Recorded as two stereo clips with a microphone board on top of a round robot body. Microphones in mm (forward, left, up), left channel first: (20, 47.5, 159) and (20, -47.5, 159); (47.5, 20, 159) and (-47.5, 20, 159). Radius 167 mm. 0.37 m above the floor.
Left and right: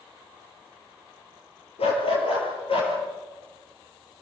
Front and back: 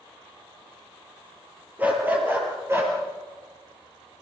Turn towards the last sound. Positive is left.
turn(degrees=115)